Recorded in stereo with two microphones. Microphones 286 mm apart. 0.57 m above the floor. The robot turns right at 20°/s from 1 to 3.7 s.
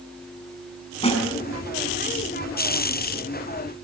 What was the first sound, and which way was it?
A snare drum, 20° left (ahead or behind).